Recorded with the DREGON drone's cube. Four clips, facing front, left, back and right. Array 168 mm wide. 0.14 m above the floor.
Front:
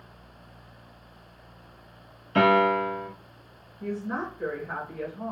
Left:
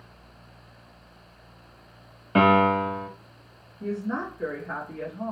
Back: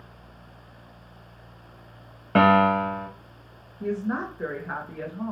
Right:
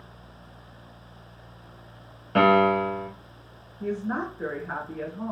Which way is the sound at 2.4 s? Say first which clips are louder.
Even, back 2 dB; 170° left.